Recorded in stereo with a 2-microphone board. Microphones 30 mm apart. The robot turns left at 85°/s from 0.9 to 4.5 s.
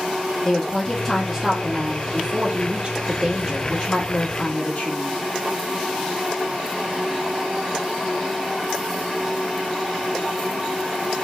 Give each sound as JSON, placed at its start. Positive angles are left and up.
{"t": 0.5, "sound": "a woman speaking", "azimuth_deg": 45, "distance_m": 1.0}